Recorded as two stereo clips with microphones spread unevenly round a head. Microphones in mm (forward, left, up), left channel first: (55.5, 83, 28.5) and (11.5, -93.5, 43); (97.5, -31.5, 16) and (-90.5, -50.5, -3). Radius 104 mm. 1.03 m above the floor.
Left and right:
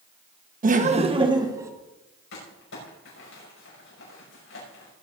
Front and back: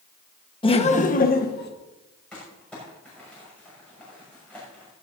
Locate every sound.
0.6 s laughter: 60° right, 1.2 m; by 1.7 s 30° right, 1.6 m
2.3 s crumpling: 90° left, 6 m